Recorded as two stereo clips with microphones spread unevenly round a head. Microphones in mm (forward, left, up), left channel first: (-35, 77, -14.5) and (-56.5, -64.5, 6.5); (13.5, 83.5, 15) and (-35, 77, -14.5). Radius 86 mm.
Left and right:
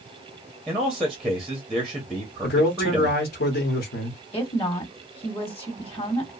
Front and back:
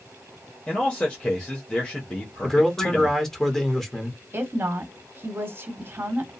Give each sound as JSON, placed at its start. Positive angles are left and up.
{"t": 0.7, "sound": "a man speaking", "azimuth_deg": -15, "distance_m": 0.8}
{"t": 2.4, "sound": "a man speaking", "azimuth_deg": 80, "distance_m": 1.0}
{"t": 4.3, "sound": "a woman speaking", "azimuth_deg": 135, "distance_m": 1.2}